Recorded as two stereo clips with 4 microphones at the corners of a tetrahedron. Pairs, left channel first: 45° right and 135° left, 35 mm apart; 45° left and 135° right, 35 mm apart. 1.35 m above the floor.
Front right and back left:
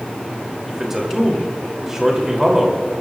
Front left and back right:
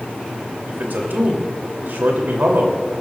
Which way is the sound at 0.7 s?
150° right.